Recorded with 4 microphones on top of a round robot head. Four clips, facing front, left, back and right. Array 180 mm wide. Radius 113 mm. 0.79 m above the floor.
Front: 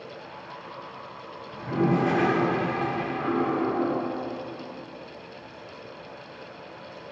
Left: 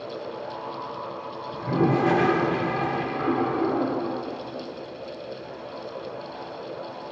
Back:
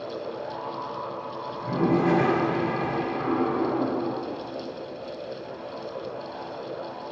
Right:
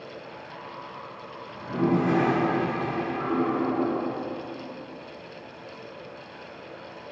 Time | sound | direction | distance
1.5 | a toilet flushing | 80° left | 1.3 m